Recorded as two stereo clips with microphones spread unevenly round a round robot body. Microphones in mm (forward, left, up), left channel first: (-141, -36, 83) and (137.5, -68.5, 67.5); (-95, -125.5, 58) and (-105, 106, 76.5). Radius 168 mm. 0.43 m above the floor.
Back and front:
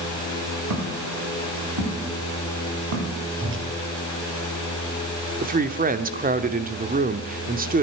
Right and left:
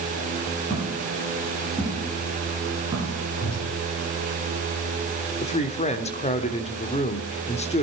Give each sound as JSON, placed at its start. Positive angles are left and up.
{"t": 0.7, "sound": "footsteps", "azimuth_deg": -10, "distance_m": 6.0}
{"t": 3.4, "sound": "a whoosh", "azimuth_deg": -50, "distance_m": 4.5}
{"t": 5.4, "sound": "a woman speaking", "azimuth_deg": -45, "distance_m": 1.1}